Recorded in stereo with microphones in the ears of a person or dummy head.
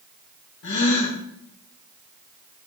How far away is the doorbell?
No doorbell in this recording.